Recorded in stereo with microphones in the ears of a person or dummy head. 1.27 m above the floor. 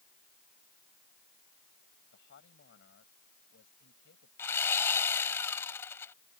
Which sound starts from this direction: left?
A man speaking, at 2.1 s.